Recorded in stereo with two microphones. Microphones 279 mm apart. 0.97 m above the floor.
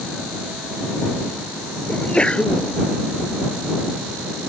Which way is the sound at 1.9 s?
5° left (ahead or behind).